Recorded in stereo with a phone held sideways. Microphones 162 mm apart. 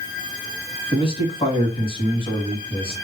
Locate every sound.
0.9 s a man speaking: 35° left (ahead or behind), 2.5 m